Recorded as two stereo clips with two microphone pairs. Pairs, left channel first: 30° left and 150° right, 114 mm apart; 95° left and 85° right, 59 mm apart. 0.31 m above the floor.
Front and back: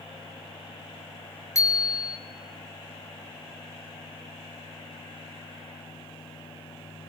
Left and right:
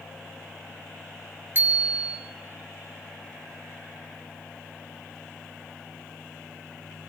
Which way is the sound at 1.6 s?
30° right.